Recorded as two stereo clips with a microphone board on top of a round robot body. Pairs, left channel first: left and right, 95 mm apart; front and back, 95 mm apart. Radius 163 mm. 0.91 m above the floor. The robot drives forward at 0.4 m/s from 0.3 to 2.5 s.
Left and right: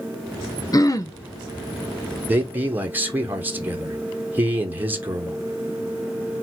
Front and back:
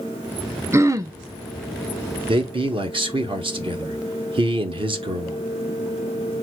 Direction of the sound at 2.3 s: 160° right.